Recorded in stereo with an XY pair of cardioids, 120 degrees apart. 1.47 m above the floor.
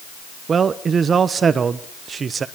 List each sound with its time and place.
0.5 s a man speaking: 35° right, 0.9 m